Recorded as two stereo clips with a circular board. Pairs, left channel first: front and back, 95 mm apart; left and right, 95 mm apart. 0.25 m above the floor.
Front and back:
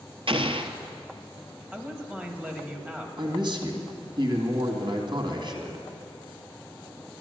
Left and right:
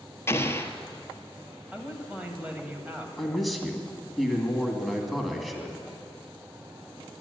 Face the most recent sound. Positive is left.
turn(degrees=180)